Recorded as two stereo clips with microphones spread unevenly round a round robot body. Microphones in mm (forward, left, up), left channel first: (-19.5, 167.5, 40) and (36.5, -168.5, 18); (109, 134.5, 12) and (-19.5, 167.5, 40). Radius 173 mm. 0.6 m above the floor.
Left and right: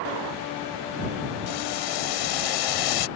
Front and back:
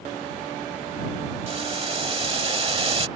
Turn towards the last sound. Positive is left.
turn(degrees=120)